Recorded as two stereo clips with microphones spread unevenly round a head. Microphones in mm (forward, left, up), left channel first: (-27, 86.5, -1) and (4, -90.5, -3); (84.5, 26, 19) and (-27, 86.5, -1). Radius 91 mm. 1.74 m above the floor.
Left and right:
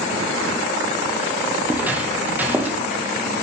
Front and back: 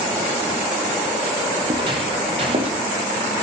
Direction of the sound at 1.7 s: 155° right.